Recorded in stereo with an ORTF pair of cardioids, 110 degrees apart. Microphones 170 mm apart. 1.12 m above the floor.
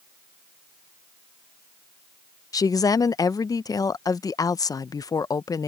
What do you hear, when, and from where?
2.5 s a woman speaking: 20° left